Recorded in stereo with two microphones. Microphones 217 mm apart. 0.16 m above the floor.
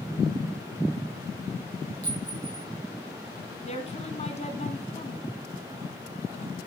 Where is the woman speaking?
30° left (ahead or behind), 1.7 m.